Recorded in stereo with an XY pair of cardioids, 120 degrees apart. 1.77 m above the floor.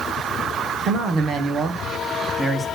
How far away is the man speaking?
About 1.6 m.